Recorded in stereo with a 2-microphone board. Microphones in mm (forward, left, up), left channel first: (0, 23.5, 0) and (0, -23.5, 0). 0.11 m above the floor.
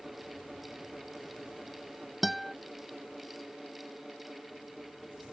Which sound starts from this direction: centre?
A guitar, at 2.2 s.